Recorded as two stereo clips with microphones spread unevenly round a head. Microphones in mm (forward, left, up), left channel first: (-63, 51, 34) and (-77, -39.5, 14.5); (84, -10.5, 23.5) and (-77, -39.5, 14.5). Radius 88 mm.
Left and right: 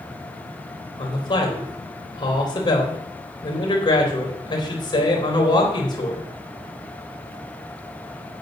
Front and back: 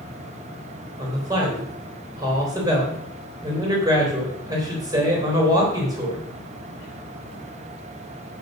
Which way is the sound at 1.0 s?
120° left.